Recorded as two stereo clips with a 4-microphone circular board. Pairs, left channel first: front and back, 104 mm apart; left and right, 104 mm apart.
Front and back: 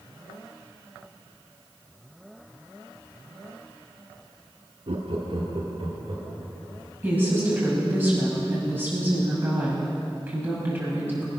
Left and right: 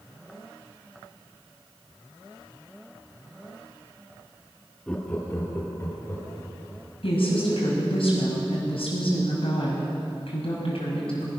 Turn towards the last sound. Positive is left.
turn(degrees=110)